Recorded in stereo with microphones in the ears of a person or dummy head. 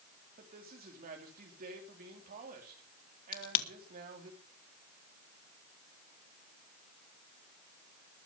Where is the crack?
45° left (ahead or behind), 3 m.